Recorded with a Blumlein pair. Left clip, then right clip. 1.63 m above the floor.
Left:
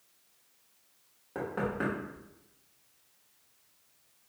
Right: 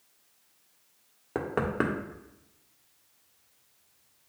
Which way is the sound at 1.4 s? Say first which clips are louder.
Right 4 dB; 60° right.